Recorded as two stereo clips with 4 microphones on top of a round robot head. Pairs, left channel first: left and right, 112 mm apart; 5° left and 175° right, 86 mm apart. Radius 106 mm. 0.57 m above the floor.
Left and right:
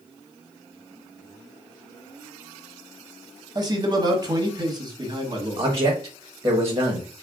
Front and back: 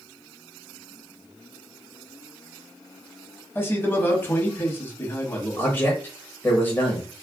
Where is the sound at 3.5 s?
50° right, 1.0 m.